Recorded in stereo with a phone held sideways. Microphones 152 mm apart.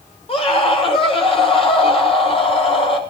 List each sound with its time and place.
0.3 s a scream: 40° left (ahead or behind), 7 m